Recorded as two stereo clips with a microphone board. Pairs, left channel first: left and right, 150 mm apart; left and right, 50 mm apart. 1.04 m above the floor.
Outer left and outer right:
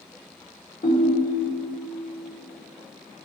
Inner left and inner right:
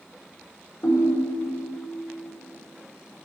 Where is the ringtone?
70° left (ahead or behind), 1.3 m.